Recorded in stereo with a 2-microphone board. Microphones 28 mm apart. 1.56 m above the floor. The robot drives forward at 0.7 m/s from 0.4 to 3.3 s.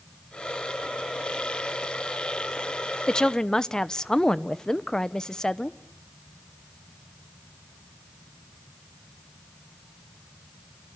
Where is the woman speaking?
25° left (ahead or behind), 0.7 m; by 5.8 s 20° left (ahead or behind), 0.8 m.